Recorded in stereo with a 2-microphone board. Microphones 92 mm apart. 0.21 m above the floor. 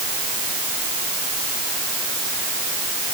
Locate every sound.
Only background noise.